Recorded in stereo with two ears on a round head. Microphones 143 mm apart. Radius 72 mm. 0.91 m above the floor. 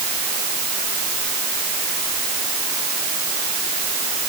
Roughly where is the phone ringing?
No phone ringing in this recording.